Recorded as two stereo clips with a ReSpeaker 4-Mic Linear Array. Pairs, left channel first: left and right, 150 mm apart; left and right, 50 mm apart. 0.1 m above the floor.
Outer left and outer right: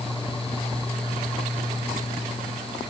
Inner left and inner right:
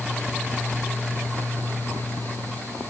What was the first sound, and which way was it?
Only background noise.